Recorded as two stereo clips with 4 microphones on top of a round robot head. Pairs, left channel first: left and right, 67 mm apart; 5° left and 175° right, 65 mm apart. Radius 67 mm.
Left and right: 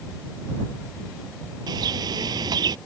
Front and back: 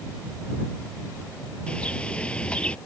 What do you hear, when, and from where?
1.7 s a bird: 75° right